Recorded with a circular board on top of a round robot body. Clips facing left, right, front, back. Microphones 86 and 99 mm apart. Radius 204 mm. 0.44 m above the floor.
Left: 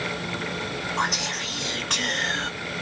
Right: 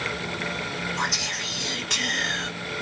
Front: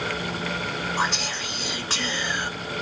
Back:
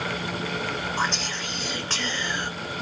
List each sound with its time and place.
1.0 s whispering: 80° left, 1.9 m